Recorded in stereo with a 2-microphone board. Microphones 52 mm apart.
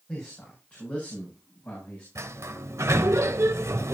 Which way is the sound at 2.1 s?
75° right (ahead or behind).